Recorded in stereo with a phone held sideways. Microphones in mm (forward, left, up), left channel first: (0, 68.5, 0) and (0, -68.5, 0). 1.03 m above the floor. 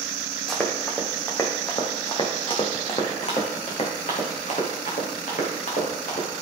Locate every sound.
0.5 s running footsteps: centre (ahead or behind), 2 m; by 6.4 s 70° left (ahead or behind), 4.5 m